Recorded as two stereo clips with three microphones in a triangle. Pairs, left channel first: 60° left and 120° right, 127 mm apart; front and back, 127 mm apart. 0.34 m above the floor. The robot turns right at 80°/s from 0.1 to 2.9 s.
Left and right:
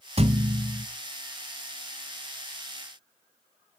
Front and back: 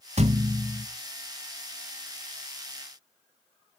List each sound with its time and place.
0.2 s a thud: 155° right, 0.9 m; by 0.9 s 100° right, 0.9 m